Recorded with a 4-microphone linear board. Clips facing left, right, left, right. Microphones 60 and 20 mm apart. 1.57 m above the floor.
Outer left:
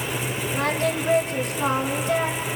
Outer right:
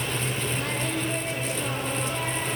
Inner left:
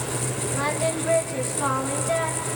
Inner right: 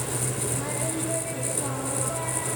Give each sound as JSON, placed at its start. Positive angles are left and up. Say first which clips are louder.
{"t": 0.5, "sound": "singing", "louder": "outer left 6 dB, inner left 5 dB", "side_deg": 75, "distance_m": 3.0}